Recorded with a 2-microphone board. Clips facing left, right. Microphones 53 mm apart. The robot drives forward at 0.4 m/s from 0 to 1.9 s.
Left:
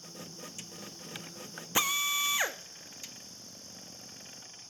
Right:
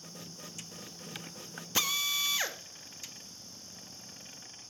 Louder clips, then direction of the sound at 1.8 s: Left 3 dB; 20° left (ahead or behind).